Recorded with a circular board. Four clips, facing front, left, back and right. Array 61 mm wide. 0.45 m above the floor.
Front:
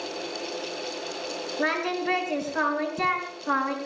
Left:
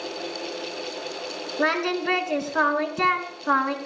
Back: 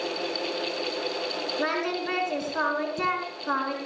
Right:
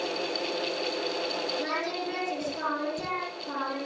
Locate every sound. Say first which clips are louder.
1.6 s singing: left 7 dB, front 2 dB; 90° left, 4 m